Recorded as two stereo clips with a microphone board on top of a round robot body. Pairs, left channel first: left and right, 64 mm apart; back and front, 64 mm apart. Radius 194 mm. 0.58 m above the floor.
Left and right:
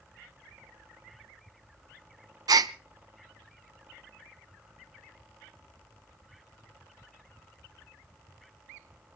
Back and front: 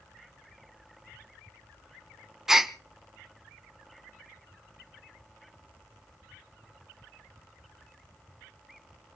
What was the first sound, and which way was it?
A gasp, 80° right.